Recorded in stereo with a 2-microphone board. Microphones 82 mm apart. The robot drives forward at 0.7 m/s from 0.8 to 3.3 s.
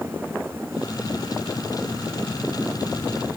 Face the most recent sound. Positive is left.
No sound to turn to.